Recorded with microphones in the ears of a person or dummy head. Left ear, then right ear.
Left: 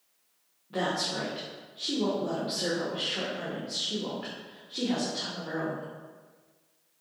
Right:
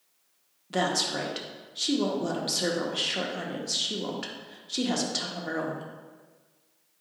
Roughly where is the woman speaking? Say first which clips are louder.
Right 3 dB; right.